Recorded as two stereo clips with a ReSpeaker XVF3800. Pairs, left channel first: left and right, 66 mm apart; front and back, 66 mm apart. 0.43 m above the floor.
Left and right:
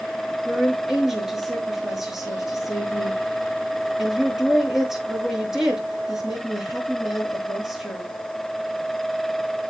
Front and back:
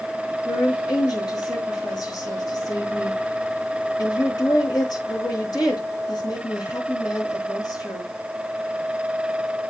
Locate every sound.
0.5 s a woman speaking: 5° right, 5.5 m